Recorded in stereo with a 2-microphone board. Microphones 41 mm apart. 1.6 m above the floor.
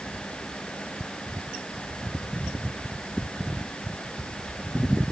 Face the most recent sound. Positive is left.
No sound to turn to.